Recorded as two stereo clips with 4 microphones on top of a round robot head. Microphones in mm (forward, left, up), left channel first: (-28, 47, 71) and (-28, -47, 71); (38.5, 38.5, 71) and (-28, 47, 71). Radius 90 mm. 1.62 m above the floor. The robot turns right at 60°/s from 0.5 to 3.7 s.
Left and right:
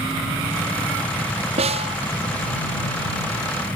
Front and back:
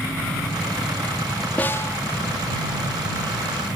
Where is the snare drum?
80° right; by 2.0 s 60° right.